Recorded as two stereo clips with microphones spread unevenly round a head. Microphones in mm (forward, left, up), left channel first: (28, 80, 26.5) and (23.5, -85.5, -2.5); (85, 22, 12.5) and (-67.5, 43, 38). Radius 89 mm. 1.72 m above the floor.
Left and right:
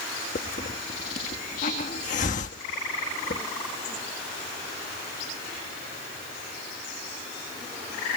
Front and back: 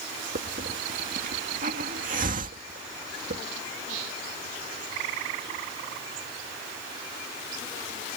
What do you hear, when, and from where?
0.3 s a hiss: 140° left